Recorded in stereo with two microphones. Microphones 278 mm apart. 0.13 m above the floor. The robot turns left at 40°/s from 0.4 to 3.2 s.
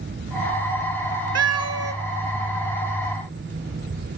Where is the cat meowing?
65° right (ahead or behind), 0.6 m; by 1.9 s 55° right (ahead or behind), 0.6 m.